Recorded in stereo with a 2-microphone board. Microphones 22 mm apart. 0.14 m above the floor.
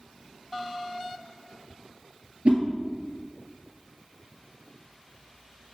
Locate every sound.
2.5 s a whoosh: 60° right (ahead or behind), 1.6 m